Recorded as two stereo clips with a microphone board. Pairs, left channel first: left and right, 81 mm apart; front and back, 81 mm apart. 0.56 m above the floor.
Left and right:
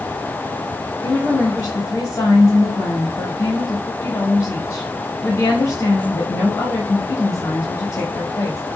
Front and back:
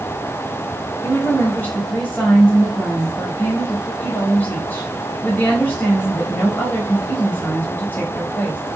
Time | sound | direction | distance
1.0 | a woman speaking | 55° left | 1.6 m